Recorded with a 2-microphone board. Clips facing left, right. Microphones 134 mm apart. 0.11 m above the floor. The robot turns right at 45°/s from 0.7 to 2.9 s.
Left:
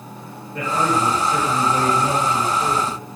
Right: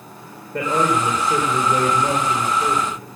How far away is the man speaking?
About 6.5 m.